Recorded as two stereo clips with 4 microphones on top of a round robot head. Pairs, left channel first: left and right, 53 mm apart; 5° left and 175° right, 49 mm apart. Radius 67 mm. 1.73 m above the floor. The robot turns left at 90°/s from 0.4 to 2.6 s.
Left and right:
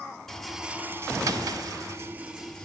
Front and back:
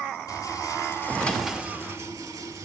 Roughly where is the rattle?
Ahead.